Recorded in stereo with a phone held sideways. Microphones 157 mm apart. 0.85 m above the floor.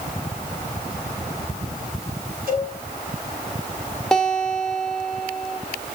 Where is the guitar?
5° left (ahead or behind), 1.4 m.